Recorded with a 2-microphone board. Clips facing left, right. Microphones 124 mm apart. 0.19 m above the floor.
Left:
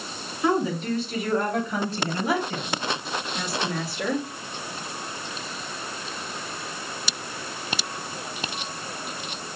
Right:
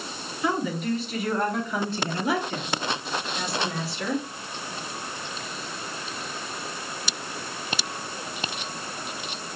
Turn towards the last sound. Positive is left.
turn(degrees=45)  # may be behind; listen again after turning